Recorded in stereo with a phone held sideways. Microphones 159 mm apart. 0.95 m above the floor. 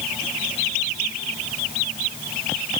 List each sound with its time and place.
Only background noise.